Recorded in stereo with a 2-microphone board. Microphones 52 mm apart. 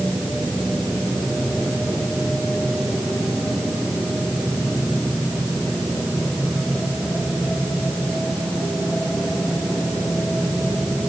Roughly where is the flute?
No flute in this recording.